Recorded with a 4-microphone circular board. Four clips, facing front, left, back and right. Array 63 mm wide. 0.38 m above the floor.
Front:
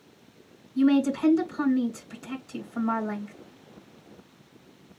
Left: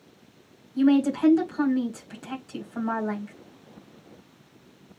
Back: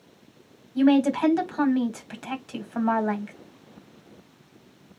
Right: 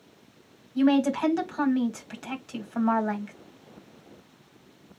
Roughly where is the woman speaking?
Behind right.